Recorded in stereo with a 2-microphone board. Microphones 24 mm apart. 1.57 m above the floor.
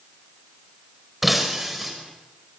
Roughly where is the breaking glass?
Centre.